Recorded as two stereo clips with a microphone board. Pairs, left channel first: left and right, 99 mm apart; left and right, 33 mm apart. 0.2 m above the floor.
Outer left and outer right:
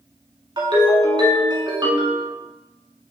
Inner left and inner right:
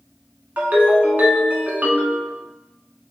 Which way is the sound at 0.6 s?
55° right (ahead or behind).